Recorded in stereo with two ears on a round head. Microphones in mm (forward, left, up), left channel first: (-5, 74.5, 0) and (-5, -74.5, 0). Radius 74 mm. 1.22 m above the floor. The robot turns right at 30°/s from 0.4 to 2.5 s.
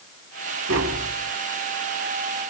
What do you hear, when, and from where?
0.7 s tapping: 85° right, 2.5 m; by 1.1 s 80° right, 2.5 m